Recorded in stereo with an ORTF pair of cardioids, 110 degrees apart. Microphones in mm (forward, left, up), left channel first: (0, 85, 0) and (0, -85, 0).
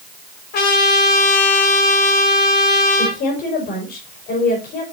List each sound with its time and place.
0.5 s a trumpet: 70° left, 3.5 m
3.0 s a woman speaking: 65° left, 4.5 m